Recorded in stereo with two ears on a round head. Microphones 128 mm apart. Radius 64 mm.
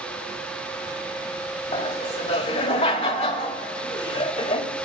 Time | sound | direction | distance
1.7 | laughter | 40° left (ahead or behind) | 1.9 m